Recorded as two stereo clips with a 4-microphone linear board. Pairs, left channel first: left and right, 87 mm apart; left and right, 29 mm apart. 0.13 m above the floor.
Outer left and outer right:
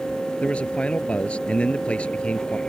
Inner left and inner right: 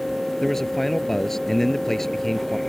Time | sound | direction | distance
0.4 | a man speaking | 15° left (ahead or behind) | ?